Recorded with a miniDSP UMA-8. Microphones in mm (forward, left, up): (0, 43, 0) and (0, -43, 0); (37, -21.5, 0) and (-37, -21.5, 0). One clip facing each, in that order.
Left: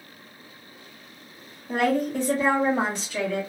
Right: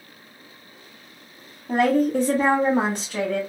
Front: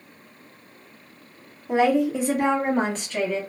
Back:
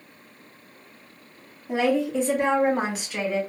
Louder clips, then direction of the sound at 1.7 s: Right 4 dB, front 3 dB; 60° right.